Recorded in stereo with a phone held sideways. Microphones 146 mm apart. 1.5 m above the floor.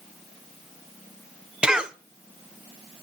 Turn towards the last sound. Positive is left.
turn(degrees=-5)  # may be behind; listen again after turning